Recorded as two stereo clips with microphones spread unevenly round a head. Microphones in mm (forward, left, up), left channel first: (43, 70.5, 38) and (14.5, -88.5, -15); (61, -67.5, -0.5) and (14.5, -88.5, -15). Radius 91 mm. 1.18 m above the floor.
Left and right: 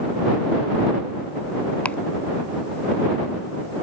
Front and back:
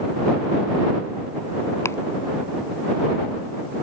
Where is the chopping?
Straight ahead.